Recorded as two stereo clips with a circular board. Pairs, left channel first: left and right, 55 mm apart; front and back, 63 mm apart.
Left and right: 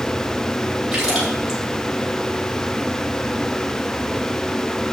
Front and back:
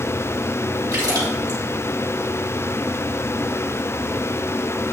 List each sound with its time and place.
0.9 s a splash: 165° right, 6 m